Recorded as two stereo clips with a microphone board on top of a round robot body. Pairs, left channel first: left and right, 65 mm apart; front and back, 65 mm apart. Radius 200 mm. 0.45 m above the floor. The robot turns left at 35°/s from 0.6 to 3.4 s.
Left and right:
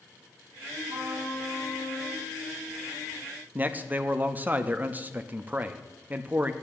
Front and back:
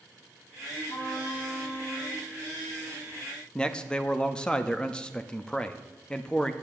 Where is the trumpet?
40° right, 6 m; by 2.2 s 85° right, 6 m.